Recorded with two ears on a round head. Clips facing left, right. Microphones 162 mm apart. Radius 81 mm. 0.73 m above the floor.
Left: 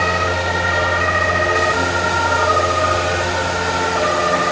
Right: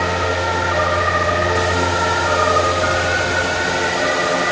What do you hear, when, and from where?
Only background noise.